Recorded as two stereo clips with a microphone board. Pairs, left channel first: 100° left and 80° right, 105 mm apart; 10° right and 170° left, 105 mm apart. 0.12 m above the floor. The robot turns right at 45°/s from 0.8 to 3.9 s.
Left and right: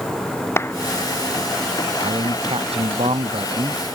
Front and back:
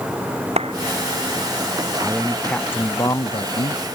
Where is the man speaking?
115° right; by 3.8 s 30° right.